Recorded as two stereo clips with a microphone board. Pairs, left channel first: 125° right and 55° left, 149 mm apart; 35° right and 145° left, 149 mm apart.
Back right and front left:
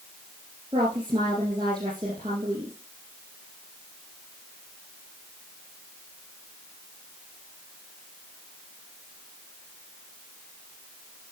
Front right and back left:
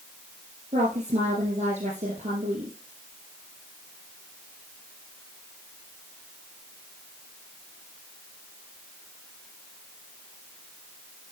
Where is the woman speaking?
110° left, 4 m.